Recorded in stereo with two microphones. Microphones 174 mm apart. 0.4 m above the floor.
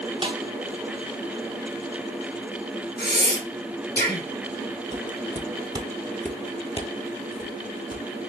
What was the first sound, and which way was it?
A snare drum, 30° right (ahead or behind).